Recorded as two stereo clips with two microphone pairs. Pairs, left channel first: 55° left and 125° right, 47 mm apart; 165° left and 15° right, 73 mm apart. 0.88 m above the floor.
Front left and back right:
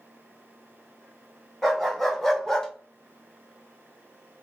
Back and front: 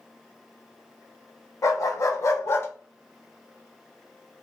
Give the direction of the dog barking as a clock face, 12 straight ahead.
7 o'clock.